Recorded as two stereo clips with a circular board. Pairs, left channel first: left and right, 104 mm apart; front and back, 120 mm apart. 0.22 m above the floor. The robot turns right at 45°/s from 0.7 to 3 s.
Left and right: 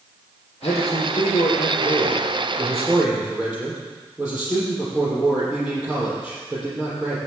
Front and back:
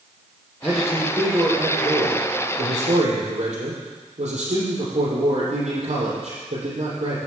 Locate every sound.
0.6 s a man speaking: 85° left, 6 m; by 7.2 s 170° right, 6 m